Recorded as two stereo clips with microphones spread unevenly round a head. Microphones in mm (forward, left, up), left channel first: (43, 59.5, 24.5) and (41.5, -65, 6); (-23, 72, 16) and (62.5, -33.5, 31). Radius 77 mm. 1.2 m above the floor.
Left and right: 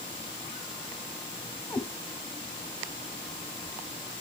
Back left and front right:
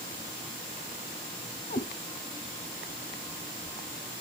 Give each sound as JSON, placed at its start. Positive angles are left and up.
{"t": 1.7, "sound": "a cat meowing", "azimuth_deg": 160, "distance_m": 1.3}